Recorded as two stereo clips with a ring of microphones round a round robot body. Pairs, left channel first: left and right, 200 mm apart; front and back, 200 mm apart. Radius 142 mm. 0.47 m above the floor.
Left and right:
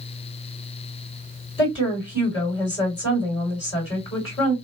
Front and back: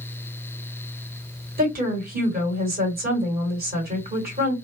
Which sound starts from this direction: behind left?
A woman speaking, at 1.6 s.